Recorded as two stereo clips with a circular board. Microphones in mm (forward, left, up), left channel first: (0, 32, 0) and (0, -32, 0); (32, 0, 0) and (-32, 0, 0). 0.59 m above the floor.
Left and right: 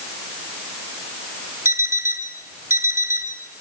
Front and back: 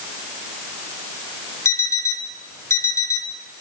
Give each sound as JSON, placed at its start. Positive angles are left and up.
{"t": 1.6, "sound": "an alarm clock", "azimuth_deg": -45, "distance_m": 1.9}